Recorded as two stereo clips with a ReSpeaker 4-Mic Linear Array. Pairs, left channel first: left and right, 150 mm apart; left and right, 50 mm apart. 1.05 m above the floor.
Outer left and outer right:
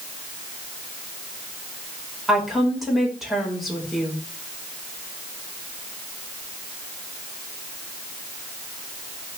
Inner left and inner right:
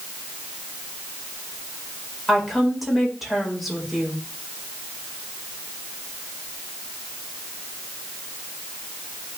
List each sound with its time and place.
2.3 s a woman speaking: centre (ahead or behind), 4.5 m